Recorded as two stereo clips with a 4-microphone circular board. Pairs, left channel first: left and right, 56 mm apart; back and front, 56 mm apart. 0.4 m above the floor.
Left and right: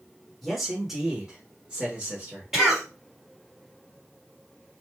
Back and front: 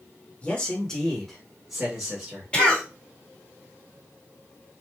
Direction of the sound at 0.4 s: 175° left.